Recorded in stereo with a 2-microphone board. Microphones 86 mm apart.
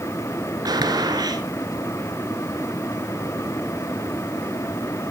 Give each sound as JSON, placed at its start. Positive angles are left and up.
{"t": 0.7, "sound": "a gunshot", "side_deg": -50, "distance_m": 1.1}